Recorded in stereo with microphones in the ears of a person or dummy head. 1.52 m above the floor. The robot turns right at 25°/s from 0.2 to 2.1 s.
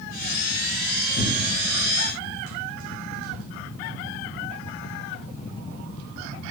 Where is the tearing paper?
75° left (ahead or behind), 1.1 m; by 3.4 s 50° left (ahead or behind), 1.1 m.